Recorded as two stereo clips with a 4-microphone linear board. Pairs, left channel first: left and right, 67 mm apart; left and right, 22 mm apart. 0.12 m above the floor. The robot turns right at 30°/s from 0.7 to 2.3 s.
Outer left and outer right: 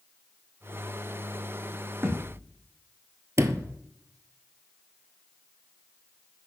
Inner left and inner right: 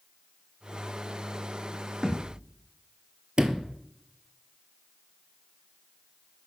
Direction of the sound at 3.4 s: 45° right (ahead or behind).